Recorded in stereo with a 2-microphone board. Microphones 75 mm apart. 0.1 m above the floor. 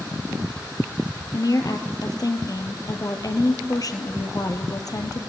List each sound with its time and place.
1.3 s a woman speaking: 55° left (ahead or behind), 2 m